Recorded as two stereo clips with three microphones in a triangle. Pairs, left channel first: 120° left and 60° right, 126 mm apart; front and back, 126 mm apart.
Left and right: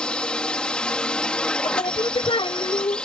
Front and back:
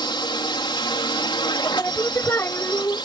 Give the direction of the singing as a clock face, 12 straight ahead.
10 o'clock.